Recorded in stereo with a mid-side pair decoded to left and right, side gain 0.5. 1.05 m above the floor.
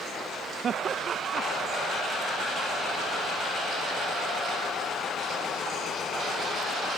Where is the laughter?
50° right.